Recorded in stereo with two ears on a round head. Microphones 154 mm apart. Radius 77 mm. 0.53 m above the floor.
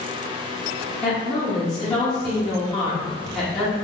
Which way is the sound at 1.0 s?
5° left (ahead or behind).